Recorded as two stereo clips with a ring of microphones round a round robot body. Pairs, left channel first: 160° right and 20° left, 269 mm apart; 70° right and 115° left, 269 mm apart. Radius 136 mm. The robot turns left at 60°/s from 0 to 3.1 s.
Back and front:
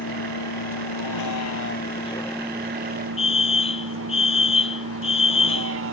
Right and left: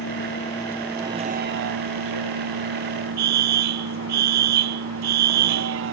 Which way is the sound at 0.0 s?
105° right.